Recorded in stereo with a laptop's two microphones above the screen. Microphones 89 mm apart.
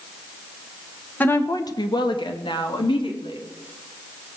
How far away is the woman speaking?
About 0.8 m.